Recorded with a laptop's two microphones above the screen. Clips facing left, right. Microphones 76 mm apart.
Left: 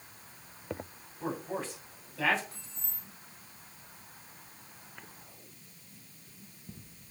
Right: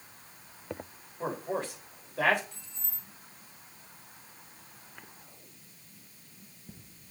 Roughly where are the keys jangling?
Left.